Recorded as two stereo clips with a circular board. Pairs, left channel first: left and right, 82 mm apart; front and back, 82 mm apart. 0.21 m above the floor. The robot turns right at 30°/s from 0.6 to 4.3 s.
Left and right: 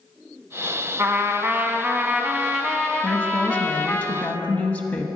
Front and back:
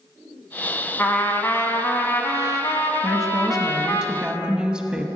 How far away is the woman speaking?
About 1.0 m.